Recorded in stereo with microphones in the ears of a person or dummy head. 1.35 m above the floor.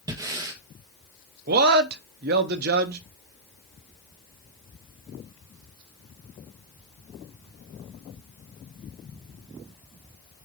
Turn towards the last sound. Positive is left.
turn(degrees=-55)  # may be behind; listen again after turning